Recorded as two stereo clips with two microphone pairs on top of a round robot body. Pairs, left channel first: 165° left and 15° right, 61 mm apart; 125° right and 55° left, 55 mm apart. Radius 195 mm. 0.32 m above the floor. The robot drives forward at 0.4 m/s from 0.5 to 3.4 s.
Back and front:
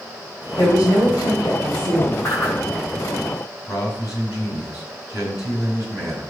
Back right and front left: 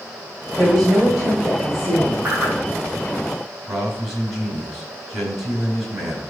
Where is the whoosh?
125° left, 3 m.